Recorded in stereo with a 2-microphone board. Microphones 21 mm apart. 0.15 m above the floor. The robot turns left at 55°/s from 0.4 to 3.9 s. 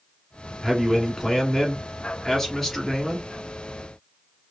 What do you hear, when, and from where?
0.6 s a man speaking: 20° left (ahead or behind), 1.1 m; by 3.3 s 5° right (ahead or behind), 1.1 m